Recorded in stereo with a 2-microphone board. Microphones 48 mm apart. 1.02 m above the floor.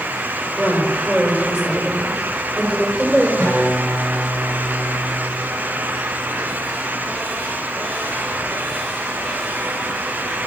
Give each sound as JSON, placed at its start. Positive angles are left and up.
{"t": 0.6, "sound": "a woman speaking", "side_deg": -20, "distance_m": 3.5}
{"t": 3.4, "sound": "a guitar", "side_deg": -60, "distance_m": 5.5}